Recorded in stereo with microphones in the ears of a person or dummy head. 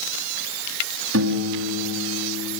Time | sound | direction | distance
1.1 | a piano | 85° right | 1.9 m